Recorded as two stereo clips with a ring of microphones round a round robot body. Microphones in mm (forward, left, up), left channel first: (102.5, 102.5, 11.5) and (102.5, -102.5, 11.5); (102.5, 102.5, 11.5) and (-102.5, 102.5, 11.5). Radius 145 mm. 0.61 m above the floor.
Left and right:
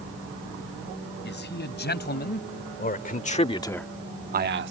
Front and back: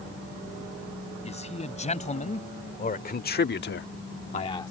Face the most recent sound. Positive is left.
turn(degrees=-80)